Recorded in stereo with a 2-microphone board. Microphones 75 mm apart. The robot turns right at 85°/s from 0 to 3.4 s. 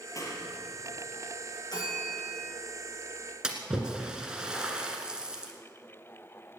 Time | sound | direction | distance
0.1 | a clap | 45° left (ahead or behind) | 2.5 m
1.7 | a bell | 60° left | 8 m
3.4 | a splash | 10° right (ahead or behind) | 1.9 m